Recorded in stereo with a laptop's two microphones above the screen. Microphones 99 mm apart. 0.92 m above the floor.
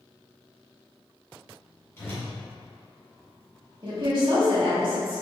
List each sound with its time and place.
2.0 s a whoosh: 25° left (ahead or behind), 1.3 m
3.8 s a woman speaking: 50° right (ahead or behind), 1.9 m